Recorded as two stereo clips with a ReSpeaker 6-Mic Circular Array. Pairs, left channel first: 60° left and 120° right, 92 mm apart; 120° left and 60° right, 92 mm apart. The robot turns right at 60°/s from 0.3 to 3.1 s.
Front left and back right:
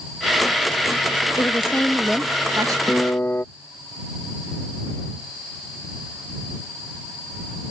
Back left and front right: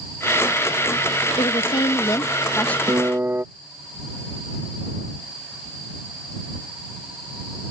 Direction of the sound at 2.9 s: 15° right.